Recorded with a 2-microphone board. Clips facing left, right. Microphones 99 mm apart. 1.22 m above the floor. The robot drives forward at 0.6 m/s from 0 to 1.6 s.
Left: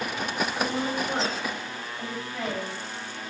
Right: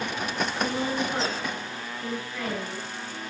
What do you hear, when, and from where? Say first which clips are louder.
0.6 s a woman speaking: right 2 dB; 30° left (ahead or behind), 5 m